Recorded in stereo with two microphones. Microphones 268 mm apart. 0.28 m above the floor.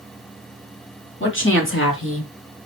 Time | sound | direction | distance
1.2 | a woman speaking | 45° left (ahead or behind) | 3 m